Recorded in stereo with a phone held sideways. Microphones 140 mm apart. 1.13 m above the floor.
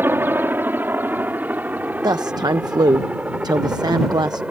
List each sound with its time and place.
0.0 s a helicopter: 15° right (ahead or behind); by 4.5 s 10° right (ahead or behind)
2.0 s a woman speaking: 30° right (ahead or behind)